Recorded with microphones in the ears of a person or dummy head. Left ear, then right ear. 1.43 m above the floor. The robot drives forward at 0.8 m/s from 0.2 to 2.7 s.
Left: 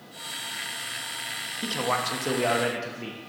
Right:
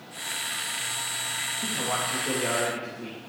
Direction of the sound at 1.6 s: 60° left (ahead or behind).